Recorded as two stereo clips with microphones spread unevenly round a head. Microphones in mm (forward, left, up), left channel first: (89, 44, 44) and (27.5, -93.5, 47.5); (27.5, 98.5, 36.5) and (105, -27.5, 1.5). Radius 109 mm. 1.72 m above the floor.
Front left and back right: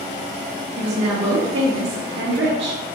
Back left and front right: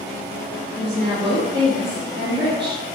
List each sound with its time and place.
0.8 s a woman speaking: 130° right, 0.8 m